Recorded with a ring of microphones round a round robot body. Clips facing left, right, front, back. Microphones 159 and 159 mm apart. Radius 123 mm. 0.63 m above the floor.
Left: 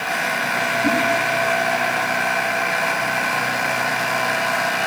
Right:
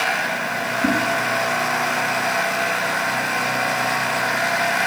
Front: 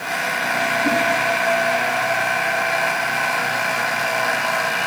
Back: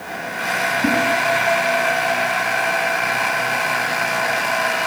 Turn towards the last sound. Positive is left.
turn(degrees=-150)